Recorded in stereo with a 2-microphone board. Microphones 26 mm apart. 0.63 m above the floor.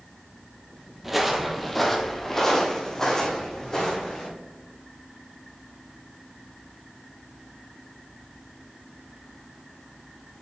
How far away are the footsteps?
About 0.9 m.